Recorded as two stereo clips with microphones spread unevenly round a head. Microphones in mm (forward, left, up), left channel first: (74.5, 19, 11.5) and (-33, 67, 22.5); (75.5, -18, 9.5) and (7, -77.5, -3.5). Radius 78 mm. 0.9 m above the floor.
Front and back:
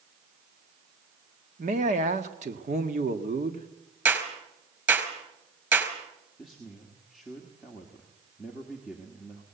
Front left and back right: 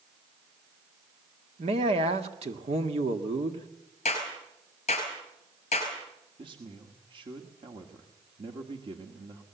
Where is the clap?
85° left, 5 m.